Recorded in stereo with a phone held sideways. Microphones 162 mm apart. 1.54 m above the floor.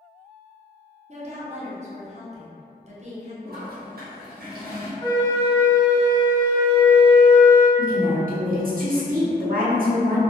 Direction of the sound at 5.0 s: 35° left (ahead or behind).